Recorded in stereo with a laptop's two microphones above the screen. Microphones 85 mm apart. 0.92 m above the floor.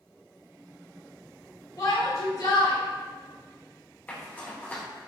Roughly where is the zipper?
Centre.